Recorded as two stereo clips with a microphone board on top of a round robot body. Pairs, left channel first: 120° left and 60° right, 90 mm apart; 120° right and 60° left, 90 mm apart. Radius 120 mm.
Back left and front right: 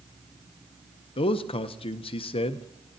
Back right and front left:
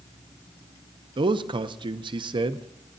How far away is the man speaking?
About 0.6 m.